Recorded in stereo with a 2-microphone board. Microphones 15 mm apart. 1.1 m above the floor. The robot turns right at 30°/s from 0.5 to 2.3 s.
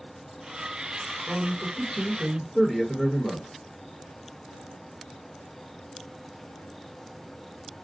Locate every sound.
1.3 s a man speaking: 55° right, 1.1 m; by 3.5 s 25° right, 1.1 m